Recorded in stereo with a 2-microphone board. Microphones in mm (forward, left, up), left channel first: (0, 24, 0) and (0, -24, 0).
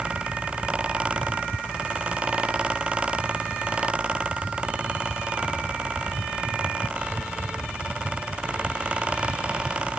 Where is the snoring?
I don't hear snoring.